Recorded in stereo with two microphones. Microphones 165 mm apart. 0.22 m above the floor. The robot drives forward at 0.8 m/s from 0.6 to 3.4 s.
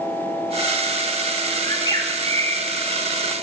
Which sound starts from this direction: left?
A bird, at 1.6 s.